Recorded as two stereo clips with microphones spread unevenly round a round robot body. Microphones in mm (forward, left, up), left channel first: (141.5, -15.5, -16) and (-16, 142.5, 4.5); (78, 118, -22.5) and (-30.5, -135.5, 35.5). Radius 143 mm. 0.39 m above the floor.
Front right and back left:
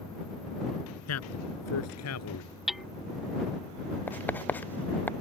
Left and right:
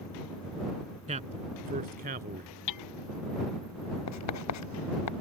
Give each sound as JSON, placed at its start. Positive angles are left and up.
{"t": 1.1, "sound": "a man speaking", "azimuth_deg": -45}
{"t": 2.7, "sound": "hammering", "azimuth_deg": 45}
{"t": 4.1, "sound": "writing", "azimuth_deg": 35}